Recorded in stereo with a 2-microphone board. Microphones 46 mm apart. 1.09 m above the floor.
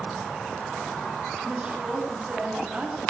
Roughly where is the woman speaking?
Centre.